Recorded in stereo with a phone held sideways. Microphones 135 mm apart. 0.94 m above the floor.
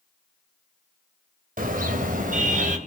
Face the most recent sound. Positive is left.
turn(degrees=-65)  # may be behind; listen again after turning